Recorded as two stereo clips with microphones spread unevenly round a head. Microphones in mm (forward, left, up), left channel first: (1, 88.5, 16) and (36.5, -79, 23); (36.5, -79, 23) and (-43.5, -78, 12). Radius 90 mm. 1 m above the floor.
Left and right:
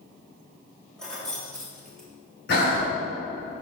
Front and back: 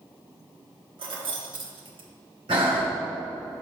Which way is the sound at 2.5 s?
140° left.